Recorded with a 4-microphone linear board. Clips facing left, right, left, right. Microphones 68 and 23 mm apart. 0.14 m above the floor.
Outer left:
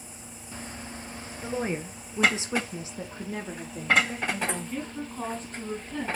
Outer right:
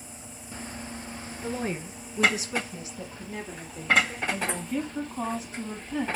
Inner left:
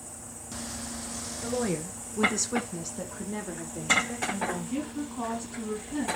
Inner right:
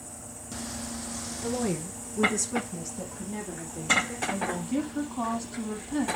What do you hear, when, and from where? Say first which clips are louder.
1.4 s a woman speaking: outer left 1 dB, even; 10° left (ahead or behind), 1.9 m; by 4.2 s 25° left (ahead or behind), 2.5 m
4.3 s a woman speaking: outer right 1 dB, inner right 1 dB; 10° right (ahead or behind), 4.5 m